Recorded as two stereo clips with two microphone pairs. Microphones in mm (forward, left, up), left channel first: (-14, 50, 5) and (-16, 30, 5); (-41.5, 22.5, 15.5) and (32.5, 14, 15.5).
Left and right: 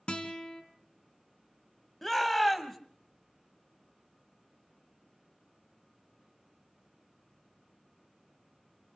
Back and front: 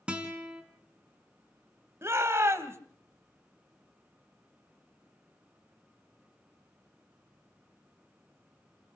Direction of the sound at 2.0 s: 10° left.